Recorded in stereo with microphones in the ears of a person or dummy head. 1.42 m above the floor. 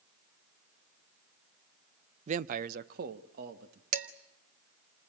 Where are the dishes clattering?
45° right (ahead or behind), 1.4 m.